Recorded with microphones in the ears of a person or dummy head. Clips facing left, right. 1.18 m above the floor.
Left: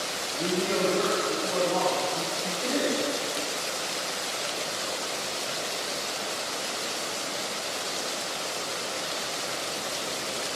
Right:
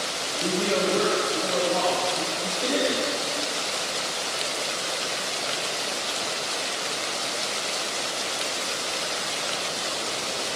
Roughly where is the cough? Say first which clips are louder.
Right 2 dB; right.